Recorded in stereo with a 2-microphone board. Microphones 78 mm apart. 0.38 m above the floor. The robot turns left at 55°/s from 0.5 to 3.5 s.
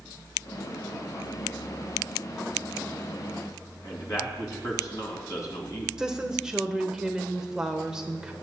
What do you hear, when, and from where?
3.8 s a man speaking: 45° left (ahead or behind), 3 m
6.0 s a woman speaking: 10° right (ahead or behind), 1.1 m